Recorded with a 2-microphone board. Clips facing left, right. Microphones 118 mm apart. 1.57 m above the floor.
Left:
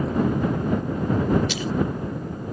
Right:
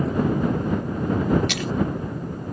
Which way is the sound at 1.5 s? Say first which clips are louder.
Even; 75° right (ahead or behind).